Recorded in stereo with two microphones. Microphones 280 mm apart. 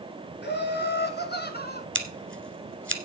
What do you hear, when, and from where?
0.4 s laughter: 40° left (ahead or behind), 3 m; by 1.9 s 35° left (ahead or behind), 1.7 m
1.9 s scissors: 45° right (ahead or behind), 1.4 m